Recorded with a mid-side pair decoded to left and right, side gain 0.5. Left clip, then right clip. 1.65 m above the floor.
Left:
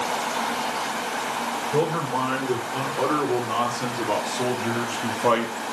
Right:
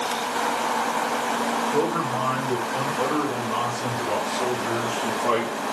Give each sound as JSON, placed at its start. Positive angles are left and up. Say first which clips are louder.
{"t": 1.7, "sound": "a man speaking", "louder": "even", "azimuth_deg": 70, "distance_m": 6.5}